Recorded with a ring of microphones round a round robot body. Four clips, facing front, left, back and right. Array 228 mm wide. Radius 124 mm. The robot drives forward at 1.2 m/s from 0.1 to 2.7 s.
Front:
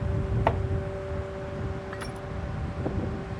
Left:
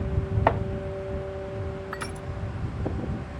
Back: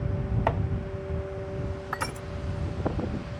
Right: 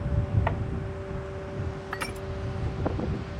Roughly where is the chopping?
Left.